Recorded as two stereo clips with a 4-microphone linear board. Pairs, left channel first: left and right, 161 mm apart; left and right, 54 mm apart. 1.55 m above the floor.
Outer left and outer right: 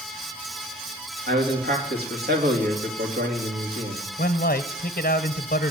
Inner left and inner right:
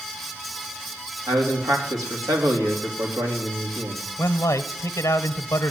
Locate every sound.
1.3 s a man speaking: 85° right, 3.5 m
4.2 s a man speaking: 65° left (ahead or behind), 0.8 m